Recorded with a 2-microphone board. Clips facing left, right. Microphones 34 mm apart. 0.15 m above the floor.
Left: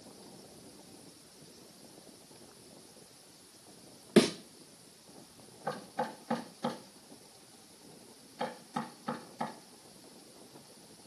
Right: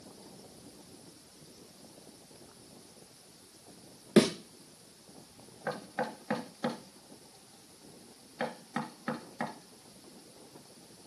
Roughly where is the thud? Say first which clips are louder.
Right 1 dB; centre.